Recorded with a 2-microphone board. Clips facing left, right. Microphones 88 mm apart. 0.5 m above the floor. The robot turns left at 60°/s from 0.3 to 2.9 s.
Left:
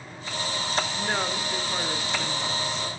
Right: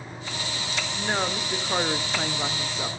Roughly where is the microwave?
I don't hear a microwave.